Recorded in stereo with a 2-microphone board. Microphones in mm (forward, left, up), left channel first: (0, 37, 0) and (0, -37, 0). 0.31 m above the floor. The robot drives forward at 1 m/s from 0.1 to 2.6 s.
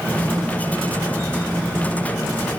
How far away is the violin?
I don't hear a violin.